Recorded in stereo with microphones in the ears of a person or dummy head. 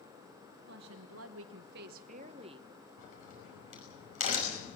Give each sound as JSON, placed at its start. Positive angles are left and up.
{"t": 0.7, "sound": "a woman speaking", "side_deg": -70, "distance_m": 1.2}
{"t": 3.0, "sound": "a crack", "side_deg": 50, "distance_m": 5.5}